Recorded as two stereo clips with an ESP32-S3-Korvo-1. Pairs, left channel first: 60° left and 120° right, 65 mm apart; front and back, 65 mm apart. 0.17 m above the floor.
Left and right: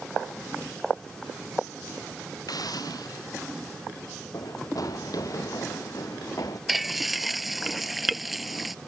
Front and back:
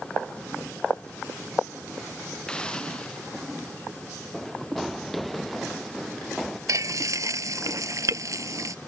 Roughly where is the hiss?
Left.